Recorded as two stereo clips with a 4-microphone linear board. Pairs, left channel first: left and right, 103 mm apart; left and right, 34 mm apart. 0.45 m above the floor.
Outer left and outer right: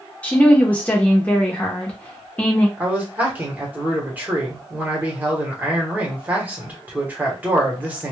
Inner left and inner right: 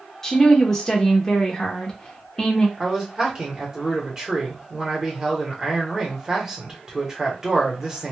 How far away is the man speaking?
About 1.2 m.